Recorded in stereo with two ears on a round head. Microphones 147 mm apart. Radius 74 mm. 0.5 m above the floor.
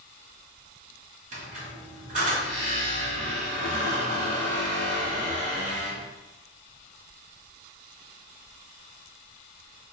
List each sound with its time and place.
1.3 s a squeak: 50° right (ahead or behind), 1.7 m